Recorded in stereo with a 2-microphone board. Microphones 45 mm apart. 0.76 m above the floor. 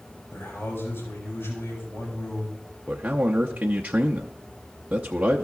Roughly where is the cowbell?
No cowbell in this recording.